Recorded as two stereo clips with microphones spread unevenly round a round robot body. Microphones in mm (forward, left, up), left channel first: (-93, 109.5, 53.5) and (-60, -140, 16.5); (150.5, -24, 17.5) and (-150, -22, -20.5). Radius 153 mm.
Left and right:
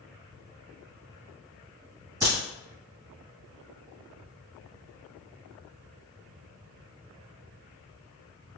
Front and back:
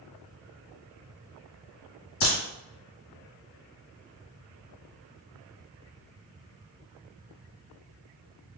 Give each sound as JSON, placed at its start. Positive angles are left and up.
{"t": 2.2, "sound": "a crack", "azimuth_deg": -10, "distance_m": 1.9}